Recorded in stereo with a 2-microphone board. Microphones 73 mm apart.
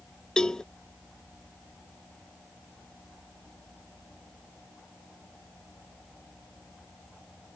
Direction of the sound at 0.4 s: 10° left (ahead or behind).